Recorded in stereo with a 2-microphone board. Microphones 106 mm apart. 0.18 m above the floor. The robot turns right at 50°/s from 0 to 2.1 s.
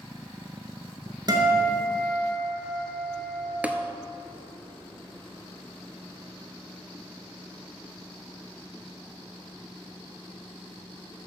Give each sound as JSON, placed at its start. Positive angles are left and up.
{"t": 1.3, "sound": "a guitar", "azimuth_deg": -50, "distance_m": 1.6}
{"t": 3.6, "sound": "tapping", "side_deg": -15, "distance_m": 0.6}